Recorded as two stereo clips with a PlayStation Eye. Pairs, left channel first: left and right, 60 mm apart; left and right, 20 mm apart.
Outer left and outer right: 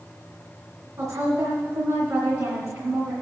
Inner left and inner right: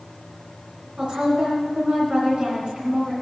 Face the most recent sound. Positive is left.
turn(degrees=-65)  # may be behind; listen again after turning